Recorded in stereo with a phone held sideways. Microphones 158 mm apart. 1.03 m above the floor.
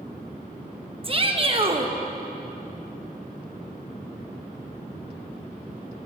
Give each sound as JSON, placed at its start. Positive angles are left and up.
{"t": 1.0, "sound": "a shout", "side_deg": -35, "distance_m": 0.9}